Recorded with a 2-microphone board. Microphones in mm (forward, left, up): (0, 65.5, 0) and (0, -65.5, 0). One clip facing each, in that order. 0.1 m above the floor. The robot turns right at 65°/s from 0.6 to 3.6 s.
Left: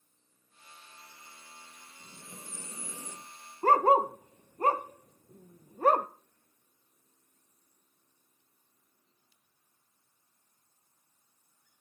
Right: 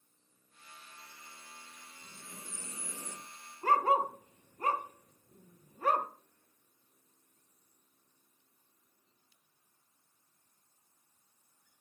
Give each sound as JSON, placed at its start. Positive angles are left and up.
{"t": 2.0, "sound": "breathing", "azimuth_deg": 100, "distance_m": 2.5}
{"t": 3.6, "sound": "a dog barking", "side_deg": 40, "distance_m": 0.7}